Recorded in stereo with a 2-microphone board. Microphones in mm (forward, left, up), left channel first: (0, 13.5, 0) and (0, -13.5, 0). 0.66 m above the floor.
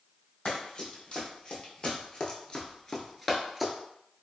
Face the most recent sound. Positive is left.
turn(degrees=-5)  # may be behind; listen again after turning